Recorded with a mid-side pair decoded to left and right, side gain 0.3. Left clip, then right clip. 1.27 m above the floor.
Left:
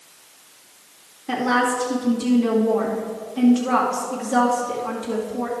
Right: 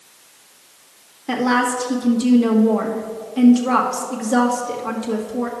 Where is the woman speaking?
60° right, 1.9 m.